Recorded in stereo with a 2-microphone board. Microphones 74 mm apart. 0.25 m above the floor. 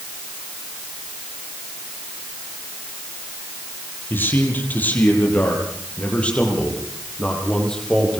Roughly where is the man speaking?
Left.